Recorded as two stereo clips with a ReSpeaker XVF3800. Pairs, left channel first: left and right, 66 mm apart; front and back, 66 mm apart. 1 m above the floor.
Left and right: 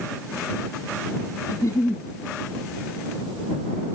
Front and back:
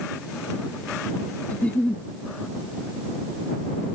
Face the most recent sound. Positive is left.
turn(degrees=65)